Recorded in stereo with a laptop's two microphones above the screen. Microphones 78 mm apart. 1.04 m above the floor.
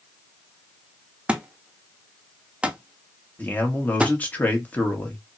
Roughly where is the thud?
Centre.